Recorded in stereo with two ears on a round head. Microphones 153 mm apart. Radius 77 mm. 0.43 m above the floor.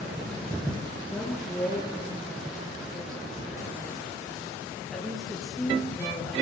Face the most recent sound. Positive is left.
turn(degrees=5)  # may be behind; listen again after turning